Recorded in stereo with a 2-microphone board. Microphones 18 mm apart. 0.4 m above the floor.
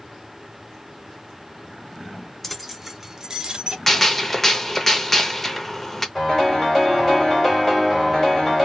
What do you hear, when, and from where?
2.4 s keys jangling: 10° left (ahead or behind), 0.6 m; by 3.8 s 50° right (ahead or behind), 0.7 m
3.9 s a gunshot: 15° left (ahead or behind), 0.6 m
6.2 s a piano: 15° left (ahead or behind), 1.8 m